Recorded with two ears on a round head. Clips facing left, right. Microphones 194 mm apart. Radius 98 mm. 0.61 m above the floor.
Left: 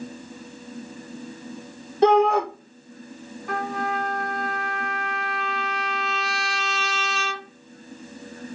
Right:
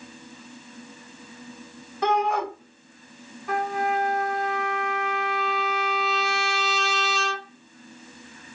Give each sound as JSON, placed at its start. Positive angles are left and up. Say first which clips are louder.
{"t": 2.0, "sound": "a shout", "louder": "left 7 dB", "side_deg": 25, "distance_m": 1.1}
{"t": 3.5, "sound": "a trumpet", "louder": "right 2 dB", "side_deg": 0, "distance_m": 1.1}